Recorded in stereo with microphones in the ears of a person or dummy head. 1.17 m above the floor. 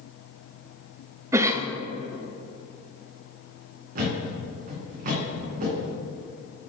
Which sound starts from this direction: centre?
A cough, at 1.3 s.